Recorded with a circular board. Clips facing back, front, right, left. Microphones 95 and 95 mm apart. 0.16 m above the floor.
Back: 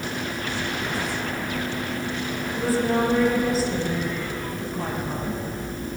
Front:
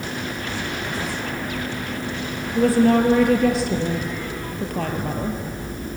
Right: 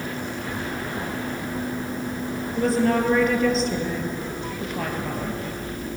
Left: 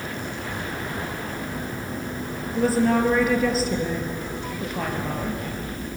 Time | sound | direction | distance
2.5 | a woman speaking | 5° left | 3.5 m